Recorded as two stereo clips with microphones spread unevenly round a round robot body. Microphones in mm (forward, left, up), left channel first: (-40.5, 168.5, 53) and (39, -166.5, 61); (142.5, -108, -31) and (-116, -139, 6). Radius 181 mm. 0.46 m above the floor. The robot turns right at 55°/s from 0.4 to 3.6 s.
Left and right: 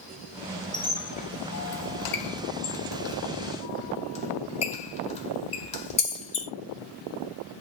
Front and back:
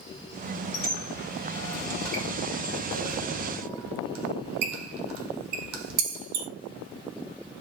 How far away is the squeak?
About 0.9 m.